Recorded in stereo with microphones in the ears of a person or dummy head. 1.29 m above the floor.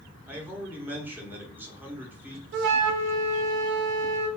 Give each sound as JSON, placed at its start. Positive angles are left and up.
{"t": 0.3, "sound": "a man speaking", "side_deg": -10, "distance_m": 0.8}
{"t": 2.5, "sound": "a flute", "side_deg": -65, "distance_m": 0.7}